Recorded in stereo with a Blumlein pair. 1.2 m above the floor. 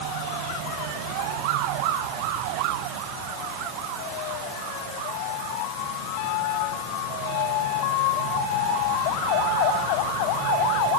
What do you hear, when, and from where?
Only background noise.